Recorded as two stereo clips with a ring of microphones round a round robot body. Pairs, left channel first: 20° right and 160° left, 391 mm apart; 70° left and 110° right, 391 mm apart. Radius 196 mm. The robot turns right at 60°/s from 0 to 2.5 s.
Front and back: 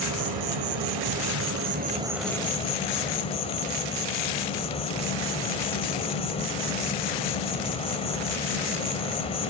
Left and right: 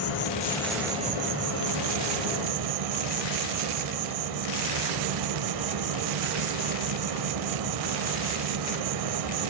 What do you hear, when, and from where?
0.0 s an insect: 115° left, 1.7 m; by 9.5 s 95° right, 1.7 m